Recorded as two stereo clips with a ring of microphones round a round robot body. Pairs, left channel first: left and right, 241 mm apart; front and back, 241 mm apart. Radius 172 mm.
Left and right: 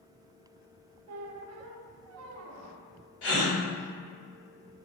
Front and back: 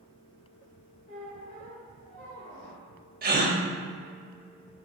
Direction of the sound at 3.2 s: 130° left.